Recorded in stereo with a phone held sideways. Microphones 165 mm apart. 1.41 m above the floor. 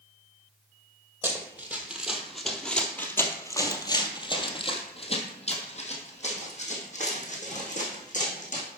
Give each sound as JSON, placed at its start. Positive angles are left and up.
{"t": 1.2, "sound": "running footsteps", "side_deg": -15, "distance_m": 1.7}